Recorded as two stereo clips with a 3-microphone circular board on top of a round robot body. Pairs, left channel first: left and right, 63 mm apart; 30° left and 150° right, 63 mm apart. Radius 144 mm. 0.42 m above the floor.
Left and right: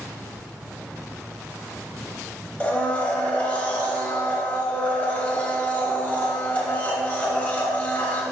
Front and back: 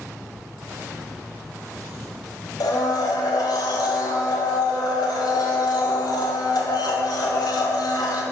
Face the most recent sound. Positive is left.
turn(degrees=20)